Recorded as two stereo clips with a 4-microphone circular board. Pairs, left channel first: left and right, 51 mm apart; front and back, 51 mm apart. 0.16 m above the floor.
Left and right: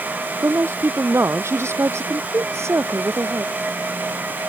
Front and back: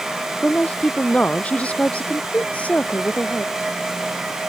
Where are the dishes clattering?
I don't hear dishes clattering.